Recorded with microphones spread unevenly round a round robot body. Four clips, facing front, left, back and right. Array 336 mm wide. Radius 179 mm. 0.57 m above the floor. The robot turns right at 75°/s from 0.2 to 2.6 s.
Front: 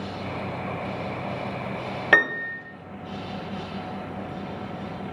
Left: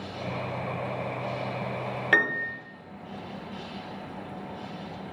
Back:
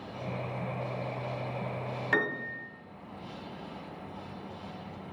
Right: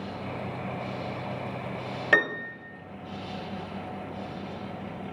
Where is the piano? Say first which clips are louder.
Right 1 dB, front 9 dB; 5° right, 0.8 m; by 2.7 s 30° left, 0.8 m.